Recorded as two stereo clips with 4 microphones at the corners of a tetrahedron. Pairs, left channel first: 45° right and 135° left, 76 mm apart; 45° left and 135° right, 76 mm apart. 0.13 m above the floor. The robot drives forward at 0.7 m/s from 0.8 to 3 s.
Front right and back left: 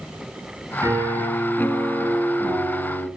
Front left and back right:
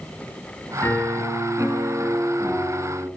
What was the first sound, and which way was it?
A piano, 110° left.